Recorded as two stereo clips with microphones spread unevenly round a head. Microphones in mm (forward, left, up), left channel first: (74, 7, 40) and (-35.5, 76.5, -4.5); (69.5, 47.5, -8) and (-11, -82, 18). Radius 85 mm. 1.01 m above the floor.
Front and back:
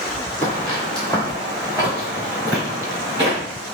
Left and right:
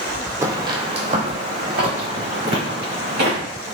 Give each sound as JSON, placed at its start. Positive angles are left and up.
{"t": 0.4, "sound": "footsteps", "azimuth_deg": -70, "distance_m": 1.2}